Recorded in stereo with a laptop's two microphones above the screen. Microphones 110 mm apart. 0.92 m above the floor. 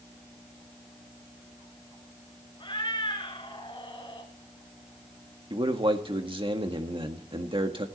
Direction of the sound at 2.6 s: 45° left (ahead or behind).